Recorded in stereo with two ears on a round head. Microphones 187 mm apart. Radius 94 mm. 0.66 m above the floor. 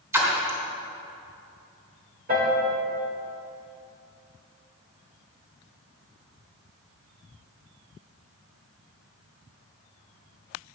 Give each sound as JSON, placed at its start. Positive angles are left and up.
{"t": 0.1, "sound": "a splash", "side_deg": -15, "distance_m": 3.0}
{"t": 2.3, "sound": "a piano", "side_deg": -45, "distance_m": 2.0}